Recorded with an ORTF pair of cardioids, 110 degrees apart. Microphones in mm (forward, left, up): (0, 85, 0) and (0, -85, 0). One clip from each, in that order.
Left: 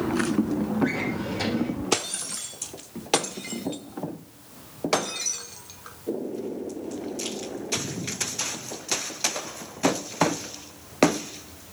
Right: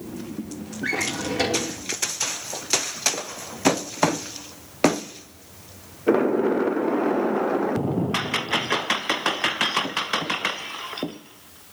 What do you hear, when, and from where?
0.8 s a drawer: 60° right, 2.5 m